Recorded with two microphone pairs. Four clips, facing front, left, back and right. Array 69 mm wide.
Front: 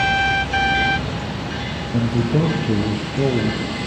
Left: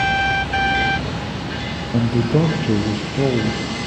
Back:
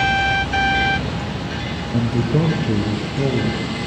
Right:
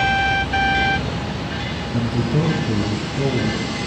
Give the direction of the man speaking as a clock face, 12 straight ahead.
9 o'clock.